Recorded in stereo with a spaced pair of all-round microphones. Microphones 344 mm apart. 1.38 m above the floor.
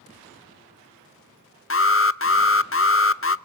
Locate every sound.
1.7 s an alarm: 35° left (ahead or behind), 0.6 m